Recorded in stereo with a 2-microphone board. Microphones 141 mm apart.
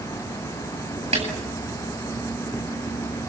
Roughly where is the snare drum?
Right.